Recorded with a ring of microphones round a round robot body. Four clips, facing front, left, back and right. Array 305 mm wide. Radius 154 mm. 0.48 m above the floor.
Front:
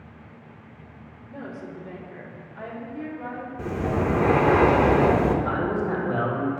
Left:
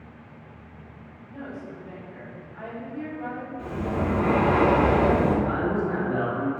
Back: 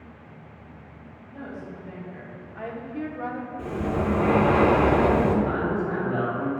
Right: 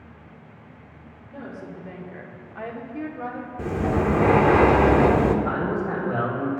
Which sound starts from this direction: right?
Breathing, at 3.6 s.